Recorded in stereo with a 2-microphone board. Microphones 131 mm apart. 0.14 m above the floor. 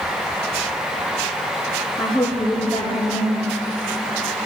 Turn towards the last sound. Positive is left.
turn(degrees=0)  # may be behind; listen again after turning